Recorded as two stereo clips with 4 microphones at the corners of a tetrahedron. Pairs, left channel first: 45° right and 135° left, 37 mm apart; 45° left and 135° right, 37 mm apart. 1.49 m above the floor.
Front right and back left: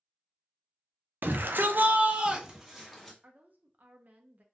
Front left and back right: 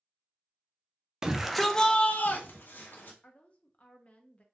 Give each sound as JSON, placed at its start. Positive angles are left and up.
{"t": 1.2, "sound": "a shout", "azimuth_deg": 150, "distance_m": 0.6}
{"t": 3.2, "sound": "a woman speaking", "azimuth_deg": 95, "distance_m": 0.7}